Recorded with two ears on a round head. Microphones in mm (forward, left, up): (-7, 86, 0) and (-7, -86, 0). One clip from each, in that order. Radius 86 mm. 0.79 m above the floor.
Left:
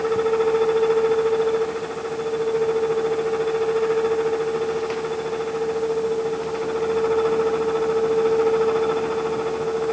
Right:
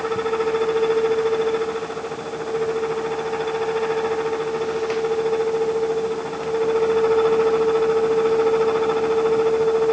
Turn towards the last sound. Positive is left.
No sound to turn to.